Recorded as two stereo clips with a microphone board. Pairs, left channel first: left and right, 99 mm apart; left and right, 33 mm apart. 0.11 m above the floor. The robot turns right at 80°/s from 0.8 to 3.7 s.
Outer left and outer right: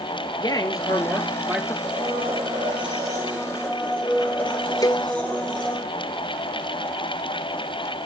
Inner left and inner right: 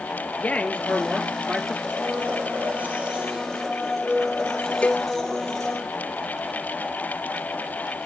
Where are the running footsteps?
No running footsteps in this recording.